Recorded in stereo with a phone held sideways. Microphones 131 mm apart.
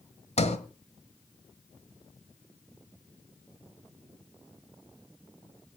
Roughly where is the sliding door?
Left.